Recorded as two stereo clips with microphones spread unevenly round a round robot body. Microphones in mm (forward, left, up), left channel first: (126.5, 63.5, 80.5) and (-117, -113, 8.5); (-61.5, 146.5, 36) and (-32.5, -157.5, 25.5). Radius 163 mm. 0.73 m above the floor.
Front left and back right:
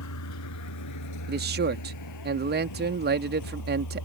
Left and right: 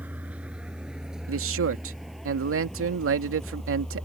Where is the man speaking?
115° right.